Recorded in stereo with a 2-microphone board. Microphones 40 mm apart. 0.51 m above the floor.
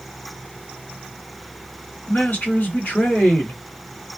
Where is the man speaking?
50° left (ahead or behind), 1.7 m.